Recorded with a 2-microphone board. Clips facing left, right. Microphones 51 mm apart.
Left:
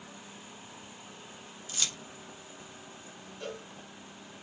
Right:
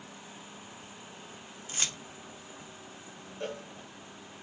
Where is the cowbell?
40° right (ahead or behind), 1.1 m.